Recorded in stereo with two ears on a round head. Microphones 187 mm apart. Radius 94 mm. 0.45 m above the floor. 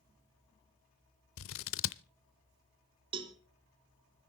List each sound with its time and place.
1.4 s scissors: 70° left (ahead or behind), 0.6 m
3.1 s a cowbell: 25° right (ahead or behind), 1.2 m